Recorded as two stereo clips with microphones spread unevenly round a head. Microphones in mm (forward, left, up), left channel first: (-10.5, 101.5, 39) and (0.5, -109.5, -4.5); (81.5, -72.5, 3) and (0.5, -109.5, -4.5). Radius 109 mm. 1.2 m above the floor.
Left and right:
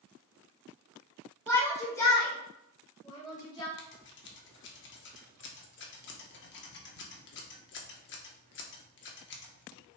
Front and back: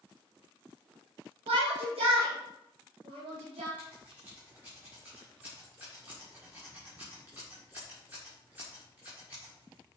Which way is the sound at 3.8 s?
120° left.